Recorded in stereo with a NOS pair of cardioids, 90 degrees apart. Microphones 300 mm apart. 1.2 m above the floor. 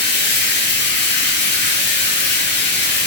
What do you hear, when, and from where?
0.0 s running water: 35° left, 1.6 m